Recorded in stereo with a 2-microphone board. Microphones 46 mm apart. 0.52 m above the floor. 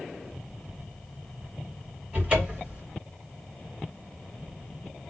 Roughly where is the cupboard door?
Right.